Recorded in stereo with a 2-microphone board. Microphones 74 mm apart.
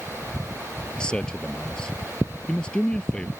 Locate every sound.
1.0 s a man speaking: 10° left (ahead or behind)